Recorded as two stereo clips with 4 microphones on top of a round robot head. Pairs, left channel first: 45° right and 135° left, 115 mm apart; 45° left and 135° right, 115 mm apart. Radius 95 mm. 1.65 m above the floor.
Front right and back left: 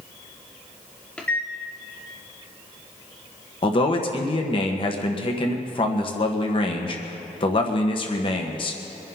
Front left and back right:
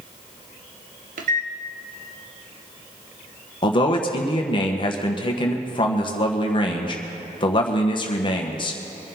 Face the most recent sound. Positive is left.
turn(degrees=0)